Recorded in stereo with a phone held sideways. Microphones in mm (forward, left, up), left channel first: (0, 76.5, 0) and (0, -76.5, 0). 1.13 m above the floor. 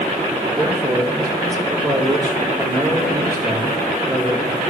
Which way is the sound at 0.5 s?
25° right (ahead or behind).